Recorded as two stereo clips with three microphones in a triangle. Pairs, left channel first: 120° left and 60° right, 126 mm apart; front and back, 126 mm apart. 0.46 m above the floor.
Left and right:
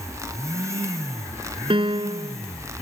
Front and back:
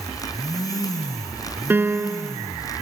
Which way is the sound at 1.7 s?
105° right.